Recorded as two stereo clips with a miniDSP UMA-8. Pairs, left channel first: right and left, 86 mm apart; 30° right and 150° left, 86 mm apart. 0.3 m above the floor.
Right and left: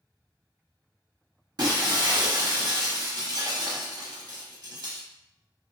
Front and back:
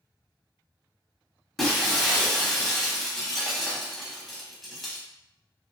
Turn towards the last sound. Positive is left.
turn(degrees=60)